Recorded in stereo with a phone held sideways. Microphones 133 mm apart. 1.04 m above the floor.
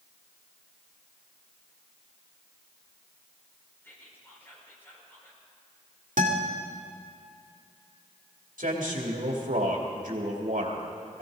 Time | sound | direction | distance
3.8 | whispering | 15° left (ahead or behind) | 4.5 m
6.2 | a guitar | 75° right (ahead or behind) | 2 m
8.6 | a man speaking | 80° right | 2.5 m